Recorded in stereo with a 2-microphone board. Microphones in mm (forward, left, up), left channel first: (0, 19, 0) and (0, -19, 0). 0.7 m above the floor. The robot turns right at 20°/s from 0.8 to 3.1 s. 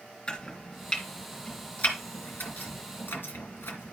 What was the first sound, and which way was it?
Chopping, 20° left (ahead or behind).